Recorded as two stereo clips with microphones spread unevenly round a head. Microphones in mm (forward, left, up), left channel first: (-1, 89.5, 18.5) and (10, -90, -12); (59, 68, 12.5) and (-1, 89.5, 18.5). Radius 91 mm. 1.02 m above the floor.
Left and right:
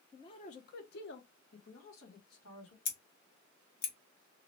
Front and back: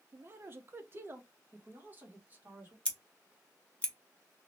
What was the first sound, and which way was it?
A man speaking, 170° left.